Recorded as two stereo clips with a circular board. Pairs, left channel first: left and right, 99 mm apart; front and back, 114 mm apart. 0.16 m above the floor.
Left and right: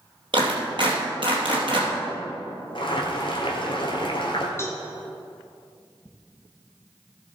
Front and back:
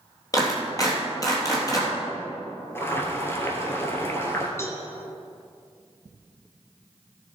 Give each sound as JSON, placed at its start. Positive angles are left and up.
{"t": 0.3, "sound": "a clap", "azimuth_deg": -60, "distance_m": 3.5}
{"t": 2.8, "sound": "boiling", "azimuth_deg": 65, "distance_m": 2.0}
{"t": 4.6, "sound": "a cowbell", "azimuth_deg": 50, "distance_m": 1.5}